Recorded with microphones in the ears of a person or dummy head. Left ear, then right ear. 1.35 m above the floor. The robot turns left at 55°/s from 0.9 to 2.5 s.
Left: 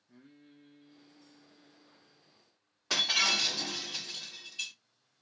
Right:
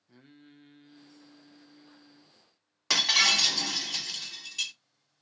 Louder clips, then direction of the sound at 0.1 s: Right 3 dB; 45° right.